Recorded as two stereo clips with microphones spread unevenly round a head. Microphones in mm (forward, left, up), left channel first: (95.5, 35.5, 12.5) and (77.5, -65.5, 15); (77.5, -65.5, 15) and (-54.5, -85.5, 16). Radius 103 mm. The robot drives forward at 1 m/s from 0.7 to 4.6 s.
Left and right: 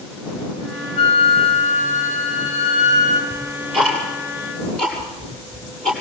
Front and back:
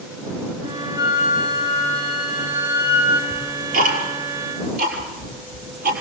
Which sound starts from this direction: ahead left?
A flute, at 1.0 s.